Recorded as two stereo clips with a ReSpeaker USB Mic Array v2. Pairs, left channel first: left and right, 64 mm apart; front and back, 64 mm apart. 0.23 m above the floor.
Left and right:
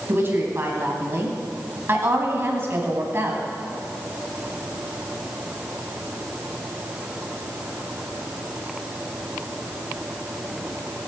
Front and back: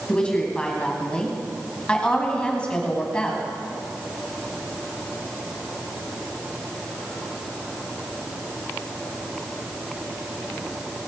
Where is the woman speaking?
65° right, 1.8 m.